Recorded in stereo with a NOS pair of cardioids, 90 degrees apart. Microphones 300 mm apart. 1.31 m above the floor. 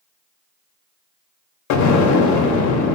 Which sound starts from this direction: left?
An explosion, at 1.7 s.